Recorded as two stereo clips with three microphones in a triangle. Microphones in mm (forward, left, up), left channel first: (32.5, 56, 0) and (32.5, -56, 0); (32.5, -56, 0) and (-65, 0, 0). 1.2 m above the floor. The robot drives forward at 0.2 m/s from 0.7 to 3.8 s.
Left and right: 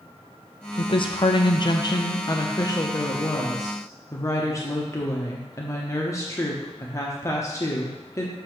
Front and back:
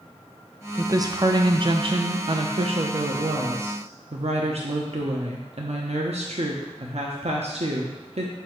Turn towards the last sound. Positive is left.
turn(degrees=150)